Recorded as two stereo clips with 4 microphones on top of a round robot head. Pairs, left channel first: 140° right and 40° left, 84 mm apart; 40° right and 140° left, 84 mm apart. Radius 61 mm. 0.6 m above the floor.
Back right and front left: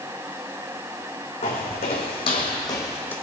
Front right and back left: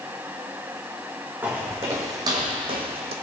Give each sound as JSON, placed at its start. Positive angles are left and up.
{"t": 1.4, "sound": "footsteps", "azimuth_deg": -150, "distance_m": 2.0}